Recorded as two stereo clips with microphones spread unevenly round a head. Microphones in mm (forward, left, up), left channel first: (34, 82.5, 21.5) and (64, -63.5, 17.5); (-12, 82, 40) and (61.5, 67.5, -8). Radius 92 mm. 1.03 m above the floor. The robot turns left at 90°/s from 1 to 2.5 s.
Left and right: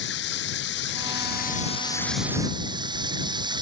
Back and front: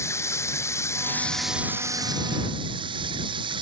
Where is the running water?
115° left; by 3.6 s 20° right.